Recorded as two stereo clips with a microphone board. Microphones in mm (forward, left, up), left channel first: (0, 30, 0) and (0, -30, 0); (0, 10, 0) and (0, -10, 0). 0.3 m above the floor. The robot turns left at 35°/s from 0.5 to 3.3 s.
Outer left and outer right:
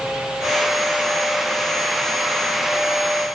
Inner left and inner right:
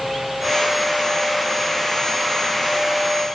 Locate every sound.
Only background noise.